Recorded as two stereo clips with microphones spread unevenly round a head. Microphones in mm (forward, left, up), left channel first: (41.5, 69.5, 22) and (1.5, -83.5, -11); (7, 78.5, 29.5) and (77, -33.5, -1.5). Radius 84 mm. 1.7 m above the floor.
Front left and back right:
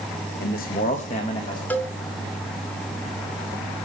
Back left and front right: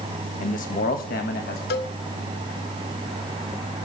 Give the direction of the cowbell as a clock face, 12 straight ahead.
7 o'clock.